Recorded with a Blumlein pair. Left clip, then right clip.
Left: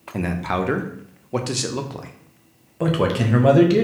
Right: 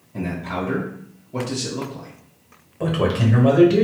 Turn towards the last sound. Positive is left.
turn(degrees=15)